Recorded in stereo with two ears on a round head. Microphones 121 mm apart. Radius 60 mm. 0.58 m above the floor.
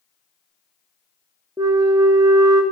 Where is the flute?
25° right (ahead or behind), 0.6 m.